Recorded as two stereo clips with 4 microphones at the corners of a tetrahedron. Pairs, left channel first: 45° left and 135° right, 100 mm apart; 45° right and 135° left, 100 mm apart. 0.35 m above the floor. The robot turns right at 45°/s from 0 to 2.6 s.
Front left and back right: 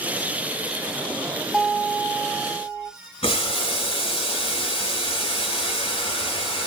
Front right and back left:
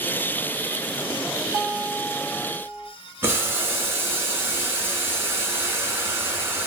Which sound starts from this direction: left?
Boiling, at 3.2 s.